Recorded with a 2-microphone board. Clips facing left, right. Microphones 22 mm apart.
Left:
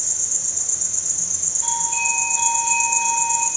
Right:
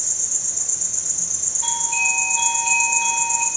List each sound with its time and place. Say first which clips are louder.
0.0 s an insect: even; 5° left (ahead or behind), 2.5 m
1.6 s a doorbell: right 2 dB; 25° right (ahead or behind), 1.7 m